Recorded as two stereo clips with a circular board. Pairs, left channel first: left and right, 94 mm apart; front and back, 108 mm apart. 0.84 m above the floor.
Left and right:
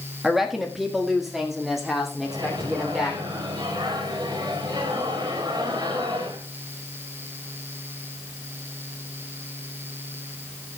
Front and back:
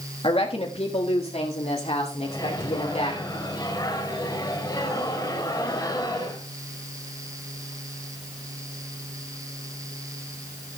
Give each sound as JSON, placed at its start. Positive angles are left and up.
{"t": 0.2, "sound": "a woman speaking", "azimuth_deg": -5, "distance_m": 1.5}
{"t": 2.2, "sound": "a microwave", "azimuth_deg": -50, "distance_m": 3.5}